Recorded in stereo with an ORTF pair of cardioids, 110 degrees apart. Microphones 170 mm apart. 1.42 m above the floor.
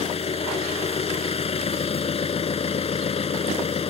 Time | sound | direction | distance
0.0 | an engine running | 35° left | ?